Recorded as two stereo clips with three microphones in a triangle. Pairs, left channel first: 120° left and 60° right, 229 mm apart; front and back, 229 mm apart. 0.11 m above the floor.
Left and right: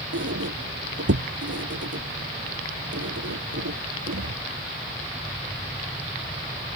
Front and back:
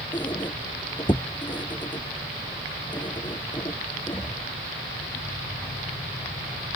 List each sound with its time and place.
0.1 s a squeak: 70° right